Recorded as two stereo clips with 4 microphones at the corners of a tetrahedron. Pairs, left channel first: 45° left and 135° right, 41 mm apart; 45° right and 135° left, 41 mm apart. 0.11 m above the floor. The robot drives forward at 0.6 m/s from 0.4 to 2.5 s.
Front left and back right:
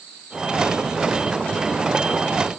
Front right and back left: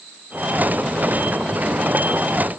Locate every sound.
Only background noise.